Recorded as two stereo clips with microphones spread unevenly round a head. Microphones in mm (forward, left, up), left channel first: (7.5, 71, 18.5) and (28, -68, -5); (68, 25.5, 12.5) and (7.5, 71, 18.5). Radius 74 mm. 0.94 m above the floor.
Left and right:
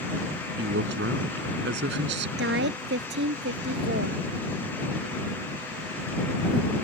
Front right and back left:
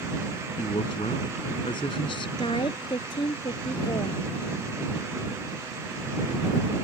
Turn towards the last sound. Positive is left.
turn(degrees=-90)